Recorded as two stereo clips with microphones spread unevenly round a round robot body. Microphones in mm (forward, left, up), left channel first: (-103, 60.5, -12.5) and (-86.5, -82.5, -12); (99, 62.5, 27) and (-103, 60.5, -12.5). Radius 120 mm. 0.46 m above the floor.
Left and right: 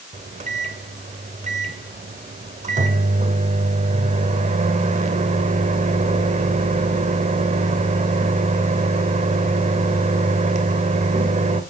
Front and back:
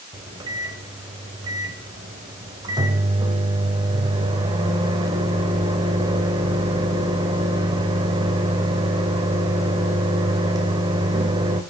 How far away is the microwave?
About 1.2 m.